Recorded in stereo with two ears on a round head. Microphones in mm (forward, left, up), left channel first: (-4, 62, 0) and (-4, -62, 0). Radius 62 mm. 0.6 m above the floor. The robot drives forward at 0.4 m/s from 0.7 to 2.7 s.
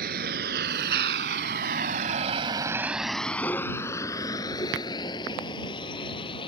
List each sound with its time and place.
0.0 s a vehicle: 75° right (ahead or behind); by 6.5 s 35° left (ahead or behind)